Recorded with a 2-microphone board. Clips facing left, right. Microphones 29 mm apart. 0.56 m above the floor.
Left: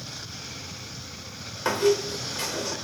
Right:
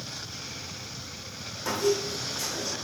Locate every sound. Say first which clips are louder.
1.6 s a squeak: left 4 dB; 60° left (ahead or behind), 1.1 m